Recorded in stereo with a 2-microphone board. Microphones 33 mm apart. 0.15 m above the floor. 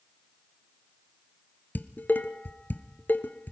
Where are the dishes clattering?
60° left (ahead or behind), 1.7 m.